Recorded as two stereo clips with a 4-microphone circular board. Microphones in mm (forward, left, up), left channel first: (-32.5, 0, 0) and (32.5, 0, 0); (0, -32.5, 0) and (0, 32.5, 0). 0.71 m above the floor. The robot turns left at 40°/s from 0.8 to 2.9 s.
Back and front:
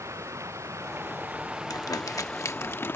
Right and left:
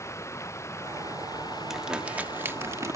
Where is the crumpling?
175° left; by 3.0 s 125° left.